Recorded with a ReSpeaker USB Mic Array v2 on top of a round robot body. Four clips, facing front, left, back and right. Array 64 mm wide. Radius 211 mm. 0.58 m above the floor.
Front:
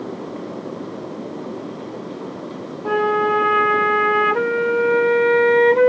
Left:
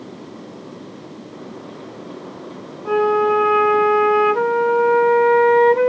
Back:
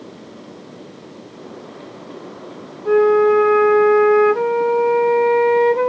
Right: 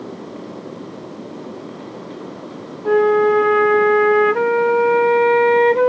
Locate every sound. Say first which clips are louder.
2.9 s a flute: right 3 dB, back 5 dB; 25° right, 1.6 m